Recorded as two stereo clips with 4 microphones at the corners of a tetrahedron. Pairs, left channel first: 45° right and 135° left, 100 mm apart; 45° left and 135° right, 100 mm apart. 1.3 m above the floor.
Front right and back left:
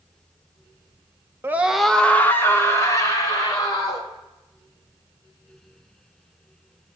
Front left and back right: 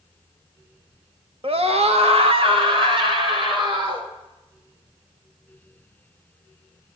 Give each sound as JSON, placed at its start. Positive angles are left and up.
{"t": 1.4, "sound": "a scream", "azimuth_deg": -160, "distance_m": 1.1}